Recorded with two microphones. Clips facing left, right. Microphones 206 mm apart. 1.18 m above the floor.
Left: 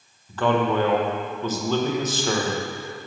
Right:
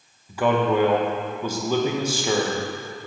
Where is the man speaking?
10° right (ahead or behind), 1.1 m.